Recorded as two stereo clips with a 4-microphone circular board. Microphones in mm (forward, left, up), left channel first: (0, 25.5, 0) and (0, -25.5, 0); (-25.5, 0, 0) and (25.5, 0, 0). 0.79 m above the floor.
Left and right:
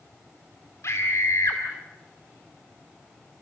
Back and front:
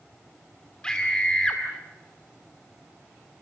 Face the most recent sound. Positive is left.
turn(degrees=105)